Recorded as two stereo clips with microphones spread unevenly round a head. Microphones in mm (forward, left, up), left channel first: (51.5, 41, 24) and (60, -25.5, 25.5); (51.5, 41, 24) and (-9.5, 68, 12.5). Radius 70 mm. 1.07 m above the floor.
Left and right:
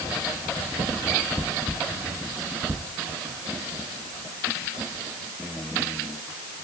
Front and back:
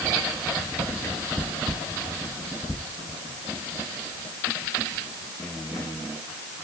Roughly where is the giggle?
I don't hear a giggle.